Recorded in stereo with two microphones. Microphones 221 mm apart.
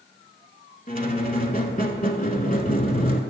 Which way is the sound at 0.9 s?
40° left (ahead or behind).